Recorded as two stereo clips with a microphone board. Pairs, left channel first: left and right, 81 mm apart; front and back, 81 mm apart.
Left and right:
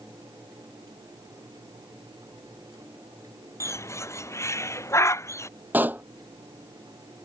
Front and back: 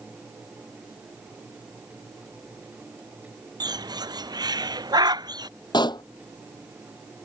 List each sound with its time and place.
3.6 s a bird: 145° left
5.7 s a pop: 20° right